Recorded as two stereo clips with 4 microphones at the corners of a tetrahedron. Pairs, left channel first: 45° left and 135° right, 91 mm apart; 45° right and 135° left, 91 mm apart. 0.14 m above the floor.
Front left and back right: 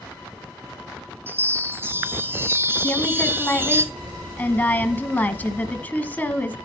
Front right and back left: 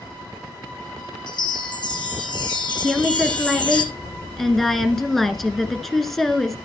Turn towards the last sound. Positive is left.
turn(degrees=40)